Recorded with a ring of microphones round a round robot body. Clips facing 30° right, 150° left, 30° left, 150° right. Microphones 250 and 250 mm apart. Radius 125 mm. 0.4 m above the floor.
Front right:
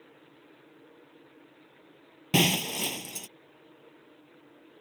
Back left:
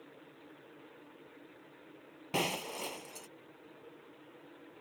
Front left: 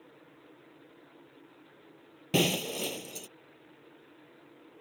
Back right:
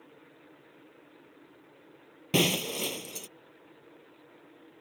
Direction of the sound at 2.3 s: 65° right.